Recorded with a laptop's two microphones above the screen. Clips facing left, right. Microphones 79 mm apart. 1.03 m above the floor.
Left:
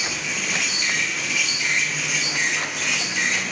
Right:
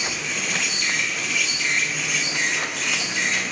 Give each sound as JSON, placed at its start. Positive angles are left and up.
{"t": 0.0, "sound": "an insect", "side_deg": 5, "distance_m": 1.4}